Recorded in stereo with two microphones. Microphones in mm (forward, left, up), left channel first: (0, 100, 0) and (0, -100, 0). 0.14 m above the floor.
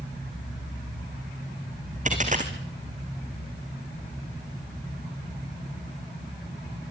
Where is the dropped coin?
40° right (ahead or behind), 3 m.